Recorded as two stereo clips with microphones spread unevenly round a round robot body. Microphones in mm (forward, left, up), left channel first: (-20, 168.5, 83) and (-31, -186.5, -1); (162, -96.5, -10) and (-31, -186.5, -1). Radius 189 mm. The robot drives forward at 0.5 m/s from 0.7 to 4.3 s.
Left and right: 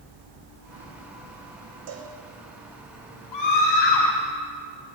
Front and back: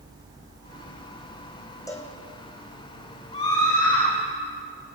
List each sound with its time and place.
1.9 s a cowbell: 50° right, 4 m
3.3 s a scream: 100° left, 3.5 m; by 4.1 s 105° left, 4 m